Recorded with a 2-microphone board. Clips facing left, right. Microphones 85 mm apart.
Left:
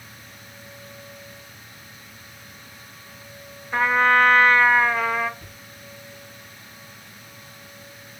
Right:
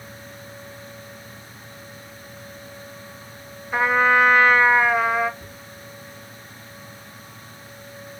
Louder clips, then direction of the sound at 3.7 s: Even; 10° right (ahead or behind).